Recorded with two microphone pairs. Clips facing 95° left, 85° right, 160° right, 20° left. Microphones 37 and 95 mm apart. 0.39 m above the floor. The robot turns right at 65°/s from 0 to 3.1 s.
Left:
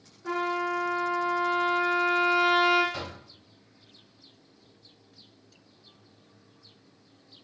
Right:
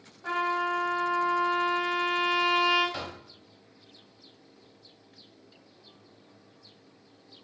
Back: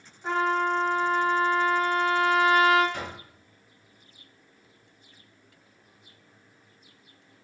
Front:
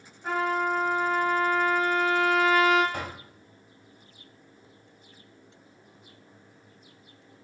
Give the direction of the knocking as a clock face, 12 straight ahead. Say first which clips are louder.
Even, front 1 dB; 12 o'clock.